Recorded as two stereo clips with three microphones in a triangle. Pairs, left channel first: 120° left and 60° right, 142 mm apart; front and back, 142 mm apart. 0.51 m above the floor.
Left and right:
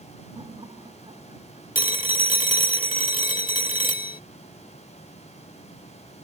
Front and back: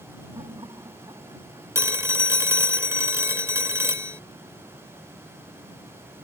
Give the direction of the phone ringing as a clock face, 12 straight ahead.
8 o'clock.